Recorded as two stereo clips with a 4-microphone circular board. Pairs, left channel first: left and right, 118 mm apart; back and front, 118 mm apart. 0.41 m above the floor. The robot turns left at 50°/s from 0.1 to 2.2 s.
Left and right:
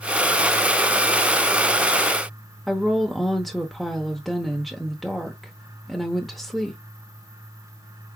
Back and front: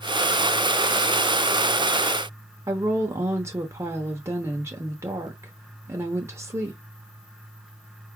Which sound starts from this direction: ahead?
A woman speaking, at 2.7 s.